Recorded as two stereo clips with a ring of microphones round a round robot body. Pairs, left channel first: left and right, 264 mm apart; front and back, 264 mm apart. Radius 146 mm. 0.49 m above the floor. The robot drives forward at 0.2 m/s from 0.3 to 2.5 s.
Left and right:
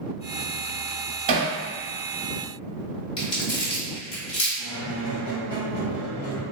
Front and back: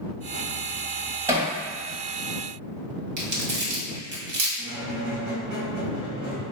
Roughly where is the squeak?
Behind left.